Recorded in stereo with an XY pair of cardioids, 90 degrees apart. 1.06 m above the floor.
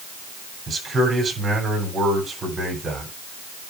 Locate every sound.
0.7 s a man speaking: 40° right, 7.5 m